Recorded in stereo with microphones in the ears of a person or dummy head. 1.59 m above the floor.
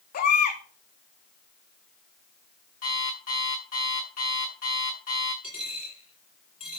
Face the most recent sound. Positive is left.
turn(degrees=35)  # may be behind; listen again after turning